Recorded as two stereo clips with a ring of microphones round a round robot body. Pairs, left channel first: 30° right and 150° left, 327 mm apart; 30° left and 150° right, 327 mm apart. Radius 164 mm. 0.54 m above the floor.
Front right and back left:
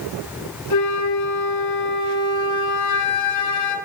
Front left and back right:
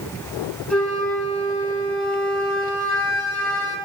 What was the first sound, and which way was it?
A flute, 55° right.